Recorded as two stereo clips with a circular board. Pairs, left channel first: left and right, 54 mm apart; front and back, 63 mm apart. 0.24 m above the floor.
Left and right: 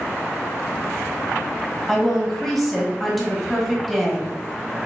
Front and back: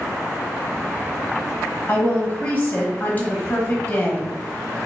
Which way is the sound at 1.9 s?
Straight ahead.